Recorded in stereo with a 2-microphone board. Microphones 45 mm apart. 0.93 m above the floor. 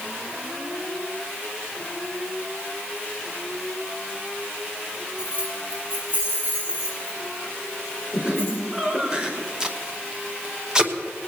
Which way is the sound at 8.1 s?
20° right (ahead or behind).